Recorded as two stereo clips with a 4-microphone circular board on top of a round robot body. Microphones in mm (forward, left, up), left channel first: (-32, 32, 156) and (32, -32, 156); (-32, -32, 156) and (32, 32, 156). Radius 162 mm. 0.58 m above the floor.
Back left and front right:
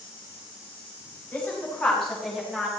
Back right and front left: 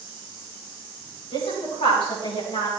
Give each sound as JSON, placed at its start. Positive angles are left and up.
{"t": 1.3, "sound": "a woman speaking", "azimuth_deg": -150, "distance_m": 5.0}